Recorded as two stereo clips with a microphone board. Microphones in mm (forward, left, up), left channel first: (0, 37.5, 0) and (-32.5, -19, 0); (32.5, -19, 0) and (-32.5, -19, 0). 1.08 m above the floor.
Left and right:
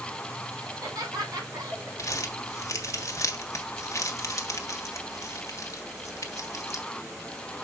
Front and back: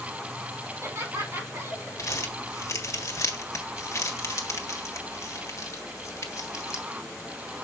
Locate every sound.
0.7 s laughter: 130° right, 5 m
2.0 s crumpling: 30° left, 1.5 m